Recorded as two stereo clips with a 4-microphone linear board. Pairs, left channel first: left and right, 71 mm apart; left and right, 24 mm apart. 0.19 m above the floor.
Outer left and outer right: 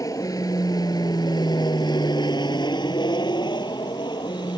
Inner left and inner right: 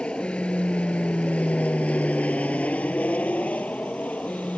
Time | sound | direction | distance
0.0 | an aircraft | 50° left (ahead or behind) | ?